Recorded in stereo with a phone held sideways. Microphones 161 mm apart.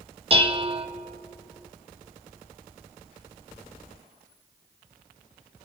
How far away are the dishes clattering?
About 0.8 m.